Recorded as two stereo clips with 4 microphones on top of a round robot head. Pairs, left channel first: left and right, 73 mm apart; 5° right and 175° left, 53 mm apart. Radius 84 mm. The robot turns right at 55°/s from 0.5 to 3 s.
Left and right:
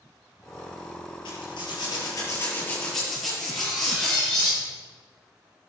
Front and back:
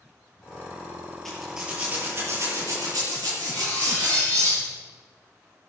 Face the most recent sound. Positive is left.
turn(degrees=175)